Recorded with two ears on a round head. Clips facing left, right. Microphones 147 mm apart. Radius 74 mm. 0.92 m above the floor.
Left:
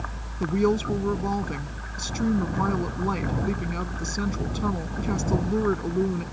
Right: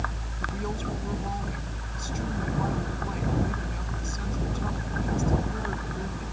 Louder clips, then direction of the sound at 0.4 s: Left 11 dB; 75° left (ahead or behind).